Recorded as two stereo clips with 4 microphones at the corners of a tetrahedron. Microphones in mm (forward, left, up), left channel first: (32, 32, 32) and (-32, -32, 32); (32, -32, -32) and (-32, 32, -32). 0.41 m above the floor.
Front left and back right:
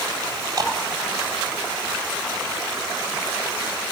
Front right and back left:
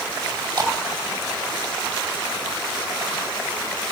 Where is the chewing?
175° left, 2.5 m.